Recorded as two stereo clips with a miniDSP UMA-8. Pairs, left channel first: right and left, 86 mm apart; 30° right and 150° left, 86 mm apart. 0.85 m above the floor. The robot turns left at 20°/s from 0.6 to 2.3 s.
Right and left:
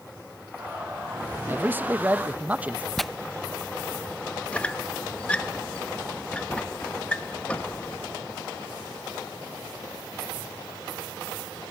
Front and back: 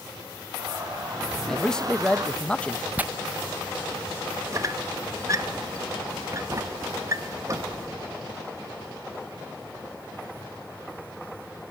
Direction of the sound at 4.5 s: 165° right.